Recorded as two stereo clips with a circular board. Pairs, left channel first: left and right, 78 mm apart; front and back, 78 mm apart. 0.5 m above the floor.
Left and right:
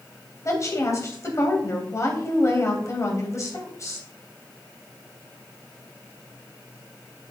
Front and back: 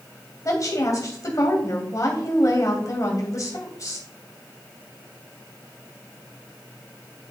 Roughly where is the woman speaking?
Ahead left.